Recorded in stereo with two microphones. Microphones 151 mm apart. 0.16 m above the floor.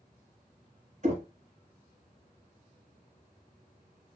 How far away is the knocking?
About 1.1 m.